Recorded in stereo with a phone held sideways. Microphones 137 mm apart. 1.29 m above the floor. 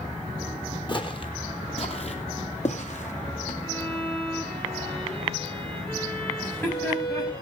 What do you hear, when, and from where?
0.9 s footsteps: 35° left (ahead or behind), 1.8 m; by 3.5 s 60° left (ahead or behind), 2.5 m
3.6 s a violin: 5° left (ahead or behind), 9 m
6.4 s laughter: 15° left (ahead or behind), 8.5 m